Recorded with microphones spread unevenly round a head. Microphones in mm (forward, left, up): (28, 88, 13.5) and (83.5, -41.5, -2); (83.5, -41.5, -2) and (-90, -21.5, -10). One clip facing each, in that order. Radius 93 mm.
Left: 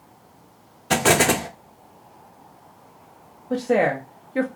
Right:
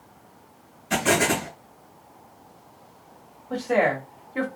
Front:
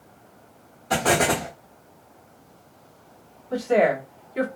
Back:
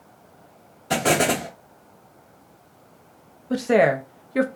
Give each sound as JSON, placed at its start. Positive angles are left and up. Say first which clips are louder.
{"t": 0.9, "sound": "an explosion", "louder": "left 4 dB, back 1 dB", "azimuth_deg": 110, "distance_m": 0.6}
{"t": 3.5, "sound": "a woman speaking", "louder": "left 2 dB, back 2 dB", "azimuth_deg": 175, "distance_m": 0.6}